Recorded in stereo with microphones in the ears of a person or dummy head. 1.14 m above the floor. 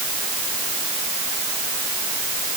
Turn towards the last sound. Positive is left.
No sound to turn to.